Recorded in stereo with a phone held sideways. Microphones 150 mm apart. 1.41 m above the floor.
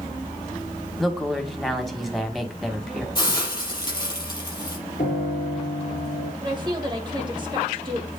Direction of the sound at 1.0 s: Centre (ahead or behind).